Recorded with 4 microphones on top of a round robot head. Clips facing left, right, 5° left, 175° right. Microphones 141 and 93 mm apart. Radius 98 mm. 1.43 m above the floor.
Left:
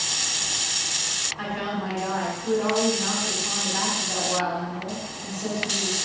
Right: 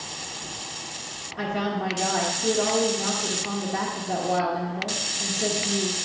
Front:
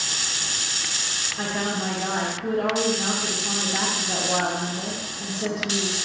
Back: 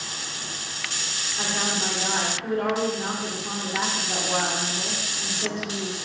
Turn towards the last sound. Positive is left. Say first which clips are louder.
# right 2 dB, front 2 dB
turn(degrees=-65)